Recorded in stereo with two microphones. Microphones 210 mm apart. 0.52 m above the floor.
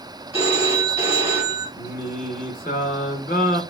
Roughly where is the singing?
Left.